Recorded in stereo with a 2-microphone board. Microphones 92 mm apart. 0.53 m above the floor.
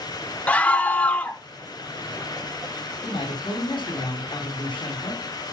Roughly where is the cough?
No cough in this recording.